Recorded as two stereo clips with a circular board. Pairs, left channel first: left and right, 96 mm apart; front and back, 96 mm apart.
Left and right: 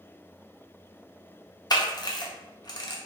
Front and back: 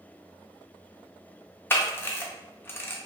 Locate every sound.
1.7 s a camera shutter: 60° left, 0.5 m